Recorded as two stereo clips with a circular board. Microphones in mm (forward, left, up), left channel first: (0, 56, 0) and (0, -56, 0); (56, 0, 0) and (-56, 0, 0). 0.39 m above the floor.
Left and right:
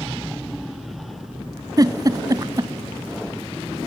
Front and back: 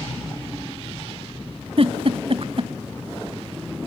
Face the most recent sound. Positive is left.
turn(degrees=-145)